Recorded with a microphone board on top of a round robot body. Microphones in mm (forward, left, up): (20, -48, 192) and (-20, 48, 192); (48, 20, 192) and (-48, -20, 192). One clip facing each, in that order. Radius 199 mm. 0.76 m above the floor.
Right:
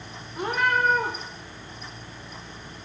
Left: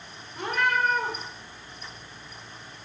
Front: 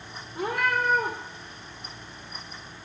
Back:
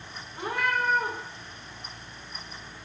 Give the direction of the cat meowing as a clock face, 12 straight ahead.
12 o'clock.